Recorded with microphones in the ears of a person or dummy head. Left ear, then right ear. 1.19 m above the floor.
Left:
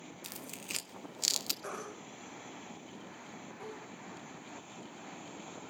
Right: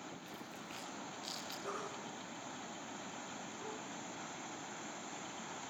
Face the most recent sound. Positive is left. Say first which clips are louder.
# even
turn(degrees=55)  # may be behind; listen again after turning